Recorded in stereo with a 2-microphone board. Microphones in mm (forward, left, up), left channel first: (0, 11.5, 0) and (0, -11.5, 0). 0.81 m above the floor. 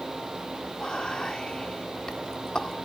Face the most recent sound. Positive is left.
turn(degrees=35)  # may be behind; listen again after turning